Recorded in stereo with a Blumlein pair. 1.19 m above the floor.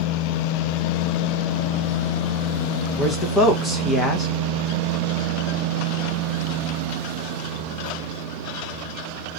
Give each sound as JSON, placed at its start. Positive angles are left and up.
{"t": 3.0, "sound": "a man speaking", "azimuth_deg": 5, "distance_m": 1.1}